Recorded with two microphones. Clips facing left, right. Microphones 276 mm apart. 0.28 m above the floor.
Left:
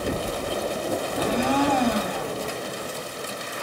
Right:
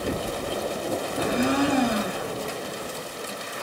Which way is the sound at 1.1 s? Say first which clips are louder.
Even; 25° right (ahead or behind).